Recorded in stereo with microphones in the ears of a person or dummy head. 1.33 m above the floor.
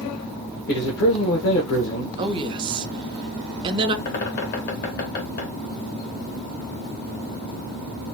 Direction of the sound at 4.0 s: 55° left (ahead or behind).